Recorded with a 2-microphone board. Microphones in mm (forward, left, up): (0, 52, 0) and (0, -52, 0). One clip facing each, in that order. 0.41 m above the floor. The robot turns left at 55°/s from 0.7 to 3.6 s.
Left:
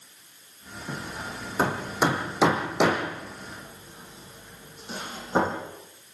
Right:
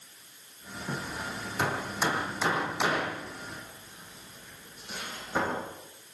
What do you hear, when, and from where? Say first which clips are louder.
0.9 s hammering: even; centre (ahead or behind), 6.5 m; by 5.6 s 30° left (ahead or behind), 6.5 m